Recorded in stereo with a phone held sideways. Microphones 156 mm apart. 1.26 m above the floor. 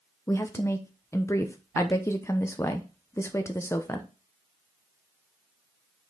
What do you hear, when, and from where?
0.3 s a woman speaking: 20° left (ahead or behind), 0.8 m